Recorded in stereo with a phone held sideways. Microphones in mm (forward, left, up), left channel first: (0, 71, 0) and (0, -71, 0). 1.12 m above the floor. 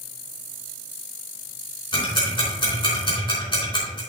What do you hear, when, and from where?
1.9 s ticking: 35° left (ahead or behind), 4 m